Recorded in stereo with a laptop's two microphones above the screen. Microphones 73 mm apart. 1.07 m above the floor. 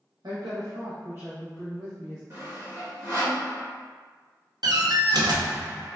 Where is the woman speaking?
75° right (ahead or behind), 1.0 m; by 2.2 s 30° left (ahead or behind), 0.9 m.